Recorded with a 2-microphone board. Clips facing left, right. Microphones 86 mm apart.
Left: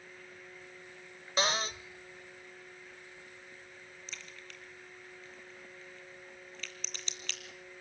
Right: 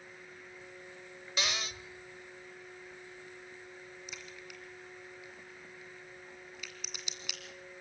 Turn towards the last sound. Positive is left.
turn(degrees=-10)  # may be behind; listen again after turning